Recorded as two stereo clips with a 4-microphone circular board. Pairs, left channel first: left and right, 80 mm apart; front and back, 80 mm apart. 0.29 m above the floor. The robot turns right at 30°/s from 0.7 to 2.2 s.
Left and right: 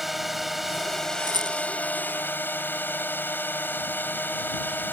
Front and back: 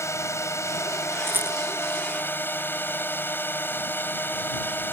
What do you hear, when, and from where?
0.0 s a drone: straight ahead; by 4.9 s 45° left
1.3 s a rattle: 120° right; by 1.6 s 110° right